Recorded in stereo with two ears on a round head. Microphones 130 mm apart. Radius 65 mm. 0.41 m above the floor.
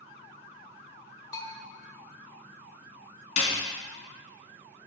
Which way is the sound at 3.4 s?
50° left (ahead or behind).